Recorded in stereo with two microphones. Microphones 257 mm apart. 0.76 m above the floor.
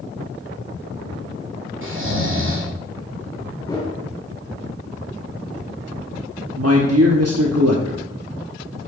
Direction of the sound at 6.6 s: 70° right (ahead or behind).